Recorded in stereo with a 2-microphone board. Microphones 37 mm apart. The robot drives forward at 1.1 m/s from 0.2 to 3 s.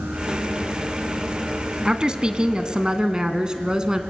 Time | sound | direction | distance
1.9 | a woman speaking | 25° right (ahead or behind) | 1.6 m